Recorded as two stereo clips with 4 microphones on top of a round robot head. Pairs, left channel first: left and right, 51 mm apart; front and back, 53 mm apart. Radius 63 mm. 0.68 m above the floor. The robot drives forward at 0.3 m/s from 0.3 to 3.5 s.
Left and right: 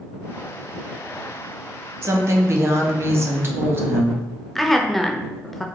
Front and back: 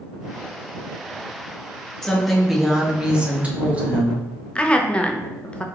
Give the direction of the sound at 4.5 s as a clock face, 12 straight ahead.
12 o'clock.